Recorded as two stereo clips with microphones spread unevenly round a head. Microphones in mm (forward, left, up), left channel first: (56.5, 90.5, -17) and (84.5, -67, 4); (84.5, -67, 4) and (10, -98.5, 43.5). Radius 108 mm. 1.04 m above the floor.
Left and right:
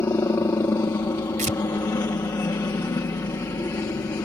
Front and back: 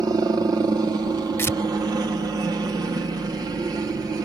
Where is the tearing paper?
40° right.